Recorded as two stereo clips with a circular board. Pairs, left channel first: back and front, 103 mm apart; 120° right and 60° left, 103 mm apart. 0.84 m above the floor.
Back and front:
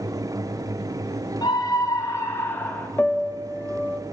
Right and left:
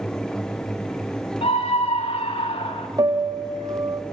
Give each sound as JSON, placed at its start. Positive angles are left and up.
{"t": 1.4, "sound": "a scream", "azimuth_deg": -130, "distance_m": 2.5}
{"t": 3.0, "sound": "a piano", "azimuth_deg": 105, "distance_m": 1.2}